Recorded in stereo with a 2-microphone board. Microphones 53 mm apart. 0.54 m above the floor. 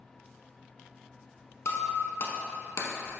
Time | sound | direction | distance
1.6 | breaking glass | 65° left (ahead or behind) | 0.9 m